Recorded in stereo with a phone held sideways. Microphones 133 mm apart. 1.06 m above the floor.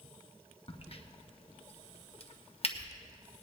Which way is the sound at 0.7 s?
45° left (ahead or behind).